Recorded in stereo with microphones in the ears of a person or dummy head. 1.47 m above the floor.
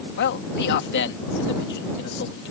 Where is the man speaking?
55° left (ahead or behind).